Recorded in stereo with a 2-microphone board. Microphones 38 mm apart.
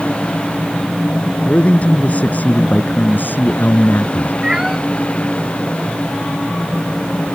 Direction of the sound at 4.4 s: 15° right (ahead or behind).